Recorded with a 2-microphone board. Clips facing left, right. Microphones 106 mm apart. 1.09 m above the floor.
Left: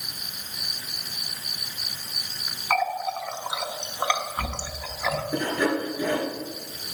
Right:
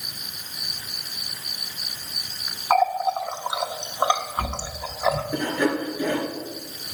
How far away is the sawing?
About 4 m.